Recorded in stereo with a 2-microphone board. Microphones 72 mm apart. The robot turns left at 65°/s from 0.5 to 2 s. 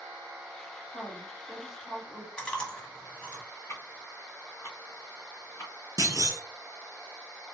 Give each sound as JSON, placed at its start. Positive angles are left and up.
{"t": 0.9, "sound": "a woman speaking", "azimuth_deg": 50, "distance_m": 2.5}
{"t": 2.4, "sound": "chewing", "side_deg": 15, "distance_m": 1.3}
{"t": 3.7, "sound": "ticking", "side_deg": 35, "distance_m": 1.9}
{"t": 6.0, "sound": "a clunk", "side_deg": -50, "distance_m": 1.0}